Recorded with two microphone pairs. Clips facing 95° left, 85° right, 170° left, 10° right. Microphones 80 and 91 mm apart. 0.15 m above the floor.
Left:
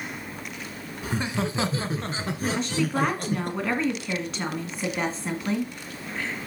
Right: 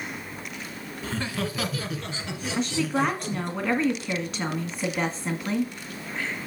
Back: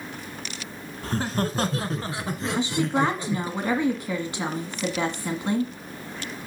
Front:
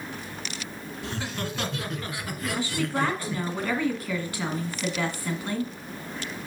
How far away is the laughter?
About 1.4 m.